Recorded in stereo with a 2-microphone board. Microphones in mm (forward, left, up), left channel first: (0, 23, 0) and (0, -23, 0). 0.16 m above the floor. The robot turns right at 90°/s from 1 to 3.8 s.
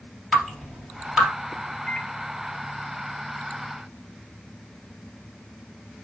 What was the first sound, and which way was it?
Dripping, 10° left (ahead or behind).